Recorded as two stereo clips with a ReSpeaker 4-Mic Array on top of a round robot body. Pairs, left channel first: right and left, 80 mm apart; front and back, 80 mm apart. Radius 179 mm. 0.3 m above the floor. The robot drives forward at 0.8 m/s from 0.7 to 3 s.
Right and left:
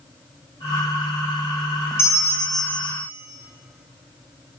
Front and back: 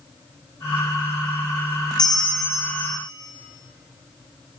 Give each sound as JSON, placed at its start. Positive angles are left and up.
{"t": 2.0, "sound": "a bell", "azimuth_deg": -35, "distance_m": 1.1}